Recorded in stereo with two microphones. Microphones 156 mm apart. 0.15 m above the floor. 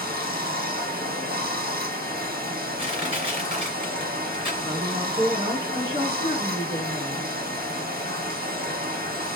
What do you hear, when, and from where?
0.0 s running water: 80° right, 1.6 m
2.8 s crushing: 35° right (ahead or behind), 2.5 m
4.6 s a woman speaking: 25° right (ahead or behind), 1.4 m